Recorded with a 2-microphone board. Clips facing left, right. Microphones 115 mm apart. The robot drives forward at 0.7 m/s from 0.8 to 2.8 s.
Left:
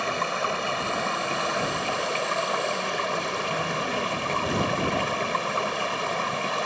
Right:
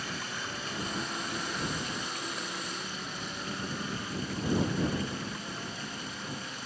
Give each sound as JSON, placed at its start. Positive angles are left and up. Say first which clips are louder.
{"t": 0.0, "sound": "running water", "louder": "left 12 dB", "side_deg": 70}